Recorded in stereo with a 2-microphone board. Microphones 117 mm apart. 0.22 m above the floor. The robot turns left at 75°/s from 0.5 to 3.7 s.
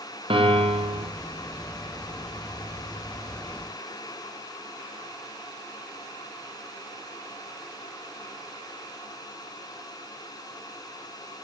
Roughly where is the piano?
Ahead right.